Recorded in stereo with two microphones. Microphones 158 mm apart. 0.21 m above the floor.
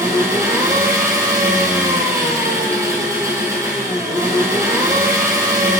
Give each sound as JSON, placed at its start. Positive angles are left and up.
{"t": 0.0, "sound": "an engine running", "side_deg": -20, "distance_m": 2.0}